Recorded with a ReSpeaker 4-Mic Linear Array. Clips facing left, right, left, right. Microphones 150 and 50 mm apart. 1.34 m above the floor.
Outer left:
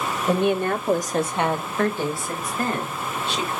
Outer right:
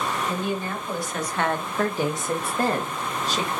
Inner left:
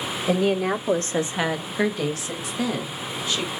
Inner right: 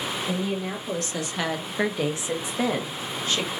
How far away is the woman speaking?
About 1.2 m.